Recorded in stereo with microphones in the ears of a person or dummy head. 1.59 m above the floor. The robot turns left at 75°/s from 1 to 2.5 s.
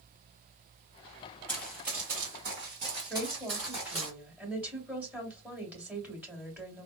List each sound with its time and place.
1.5 s running footsteps: 15° left (ahead or behind), 1.9 m; by 4.1 s centre (ahead or behind), 1.7 m
3.1 s a woman speaking: 10° right (ahead or behind), 2 m